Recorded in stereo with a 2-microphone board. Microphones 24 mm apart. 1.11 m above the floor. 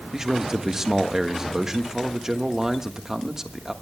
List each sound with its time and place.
0.1 s a man speaking: 20° right (ahead or behind), 1.4 m